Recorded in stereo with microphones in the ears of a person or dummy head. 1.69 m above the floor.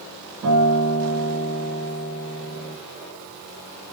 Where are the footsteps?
I don't hear footsteps.